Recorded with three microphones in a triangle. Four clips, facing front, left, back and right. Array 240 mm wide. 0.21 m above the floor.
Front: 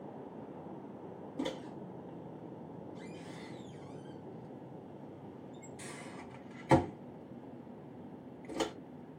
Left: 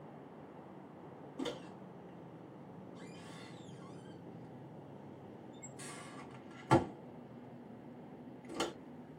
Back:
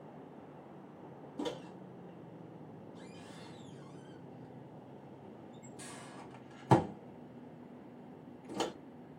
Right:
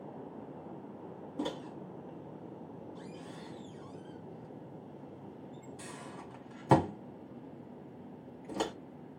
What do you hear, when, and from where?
1.4 s a microwave: 105° right, 1.5 m